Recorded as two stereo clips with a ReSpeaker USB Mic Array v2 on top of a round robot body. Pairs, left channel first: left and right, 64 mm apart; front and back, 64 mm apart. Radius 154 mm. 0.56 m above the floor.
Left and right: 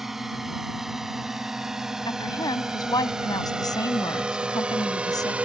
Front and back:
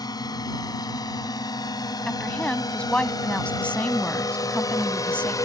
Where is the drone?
5° right; by 5.5 s 20° right.